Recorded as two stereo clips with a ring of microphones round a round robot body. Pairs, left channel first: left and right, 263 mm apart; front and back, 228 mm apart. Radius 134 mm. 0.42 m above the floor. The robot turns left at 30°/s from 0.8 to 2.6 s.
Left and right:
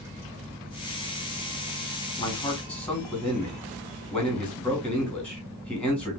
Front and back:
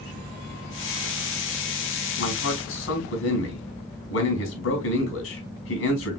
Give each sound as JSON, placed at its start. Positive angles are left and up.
{"t": 2.2, "sound": "a man speaking", "azimuth_deg": 20, "distance_m": 2.5}